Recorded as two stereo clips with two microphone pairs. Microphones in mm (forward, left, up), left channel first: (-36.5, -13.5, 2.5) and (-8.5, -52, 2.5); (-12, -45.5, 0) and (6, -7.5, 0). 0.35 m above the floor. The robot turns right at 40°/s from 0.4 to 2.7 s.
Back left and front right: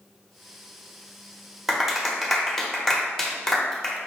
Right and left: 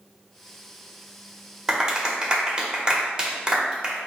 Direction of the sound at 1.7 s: 15° left.